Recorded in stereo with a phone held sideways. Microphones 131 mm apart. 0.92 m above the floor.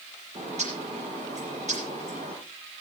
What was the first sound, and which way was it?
A bird, 60° right (ahead or behind).